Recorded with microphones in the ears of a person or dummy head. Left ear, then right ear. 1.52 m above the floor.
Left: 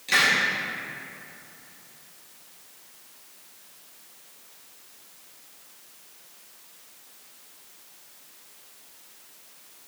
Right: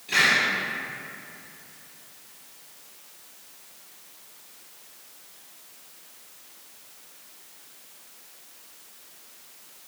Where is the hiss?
65° left (ahead or behind), 2 m.